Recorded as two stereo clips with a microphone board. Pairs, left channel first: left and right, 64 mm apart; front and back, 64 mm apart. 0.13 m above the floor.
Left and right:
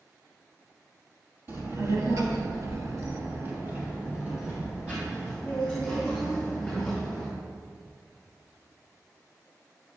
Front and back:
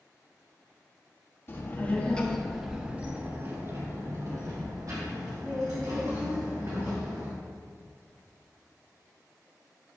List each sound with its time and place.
1.5 s a child speaking: 50° right, 2.5 m; by 7.3 s straight behind, 7 m